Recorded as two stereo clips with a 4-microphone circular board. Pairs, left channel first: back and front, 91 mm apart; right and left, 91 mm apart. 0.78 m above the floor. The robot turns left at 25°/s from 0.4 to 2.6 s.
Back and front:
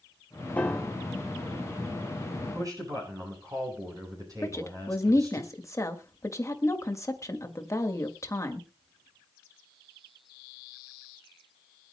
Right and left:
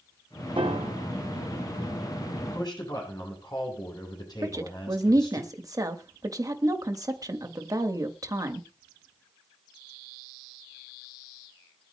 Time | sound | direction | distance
0.6 | a piano | 105° left | 1.3 m
2.4 | a man speaking | 45° right | 8.5 m
4.4 | a woman speaking | 130° left | 1.6 m